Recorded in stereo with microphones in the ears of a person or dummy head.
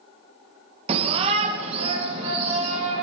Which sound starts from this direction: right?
A shout, at 0.9 s.